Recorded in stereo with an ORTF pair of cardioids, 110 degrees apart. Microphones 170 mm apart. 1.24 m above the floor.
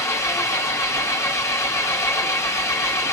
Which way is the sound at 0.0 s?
15° left.